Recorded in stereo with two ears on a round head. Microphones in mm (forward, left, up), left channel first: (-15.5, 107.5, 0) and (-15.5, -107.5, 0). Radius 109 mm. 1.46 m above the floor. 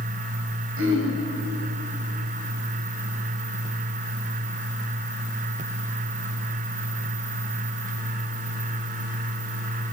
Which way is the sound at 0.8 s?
60° right (ahead or behind).